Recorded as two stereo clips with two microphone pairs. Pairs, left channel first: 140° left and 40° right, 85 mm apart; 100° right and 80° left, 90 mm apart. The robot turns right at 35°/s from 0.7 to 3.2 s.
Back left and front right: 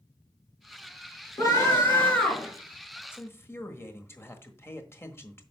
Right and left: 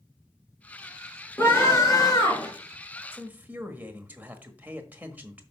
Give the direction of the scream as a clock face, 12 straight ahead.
6 o'clock.